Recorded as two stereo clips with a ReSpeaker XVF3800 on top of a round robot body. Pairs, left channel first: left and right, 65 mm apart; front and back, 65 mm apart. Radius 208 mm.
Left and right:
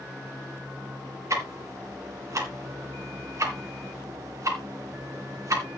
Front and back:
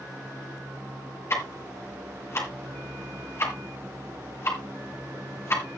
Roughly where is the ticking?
Ahead right.